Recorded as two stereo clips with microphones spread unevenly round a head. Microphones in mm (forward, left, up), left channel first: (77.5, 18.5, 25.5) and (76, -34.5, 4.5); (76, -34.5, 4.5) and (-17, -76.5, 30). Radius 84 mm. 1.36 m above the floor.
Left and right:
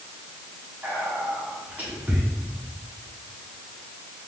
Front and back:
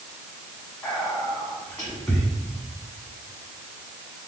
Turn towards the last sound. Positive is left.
turn(degrees=-45)